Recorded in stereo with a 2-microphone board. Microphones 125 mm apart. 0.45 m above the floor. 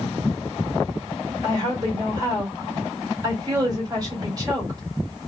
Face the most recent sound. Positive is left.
turn(degrees=-30)  # may be behind; listen again after turning